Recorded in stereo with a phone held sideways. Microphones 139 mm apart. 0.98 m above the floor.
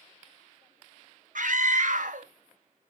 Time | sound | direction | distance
1.4 | a scream | 65° right (ahead or behind) | 0.6 m